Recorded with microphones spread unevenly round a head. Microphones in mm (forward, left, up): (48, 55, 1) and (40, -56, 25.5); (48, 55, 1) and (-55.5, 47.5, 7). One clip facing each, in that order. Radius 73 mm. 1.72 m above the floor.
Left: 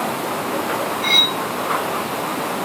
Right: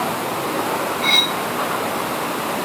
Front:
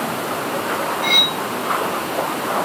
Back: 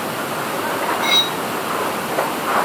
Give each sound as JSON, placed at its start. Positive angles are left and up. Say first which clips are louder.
{"t": 1.0, "sound": "cutlery clinking", "louder": "right 1 dB, back 1 dB", "azimuth_deg": -130, "distance_m": 1.6}